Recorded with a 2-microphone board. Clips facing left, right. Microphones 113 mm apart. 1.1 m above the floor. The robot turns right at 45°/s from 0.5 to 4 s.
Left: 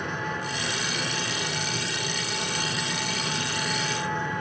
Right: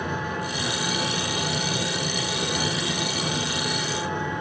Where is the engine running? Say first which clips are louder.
Right 2 dB; 170° right, 7 m; by 4.4 s 15° right, 7 m.